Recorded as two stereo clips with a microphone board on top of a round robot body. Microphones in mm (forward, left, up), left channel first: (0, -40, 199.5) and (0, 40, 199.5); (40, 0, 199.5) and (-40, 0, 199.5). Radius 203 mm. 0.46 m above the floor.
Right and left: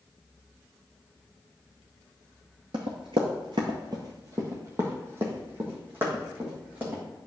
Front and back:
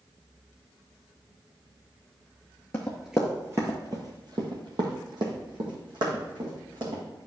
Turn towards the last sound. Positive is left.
turn(degrees=160)